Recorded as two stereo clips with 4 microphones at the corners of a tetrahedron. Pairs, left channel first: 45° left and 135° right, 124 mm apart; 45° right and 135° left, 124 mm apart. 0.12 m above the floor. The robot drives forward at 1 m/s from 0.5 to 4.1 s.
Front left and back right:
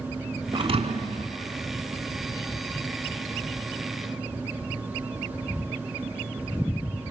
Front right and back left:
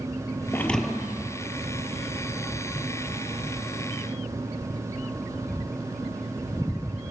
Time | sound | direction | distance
0.5 | a thud | 105° right | 0.7 m